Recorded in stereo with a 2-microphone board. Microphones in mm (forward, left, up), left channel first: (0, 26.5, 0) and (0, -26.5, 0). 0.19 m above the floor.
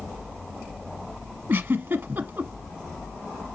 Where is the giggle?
40° right (ahead or behind), 1.0 m.